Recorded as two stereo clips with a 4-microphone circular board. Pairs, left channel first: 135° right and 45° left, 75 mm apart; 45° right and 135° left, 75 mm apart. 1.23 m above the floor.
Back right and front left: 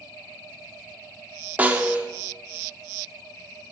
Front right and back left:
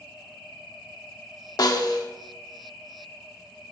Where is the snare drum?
25° right, 1.2 m.